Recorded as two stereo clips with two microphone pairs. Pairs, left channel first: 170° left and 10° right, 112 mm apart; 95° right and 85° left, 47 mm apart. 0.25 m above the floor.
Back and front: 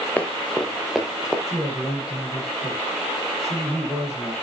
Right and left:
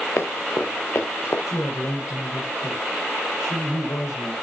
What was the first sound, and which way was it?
Running footsteps, 110° right.